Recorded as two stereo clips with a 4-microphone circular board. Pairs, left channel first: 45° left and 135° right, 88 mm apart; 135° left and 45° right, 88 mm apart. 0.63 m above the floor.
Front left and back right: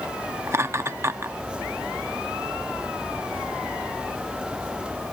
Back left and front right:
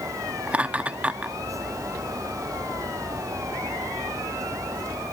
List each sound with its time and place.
0.5 s laughter: 105° right